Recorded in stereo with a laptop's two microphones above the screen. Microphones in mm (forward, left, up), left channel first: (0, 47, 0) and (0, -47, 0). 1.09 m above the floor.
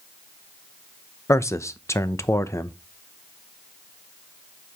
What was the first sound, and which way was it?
A man speaking, 30° left (ahead or behind).